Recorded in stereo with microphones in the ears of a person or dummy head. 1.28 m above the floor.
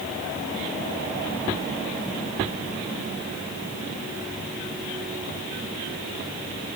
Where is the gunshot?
No gunshot in this recording.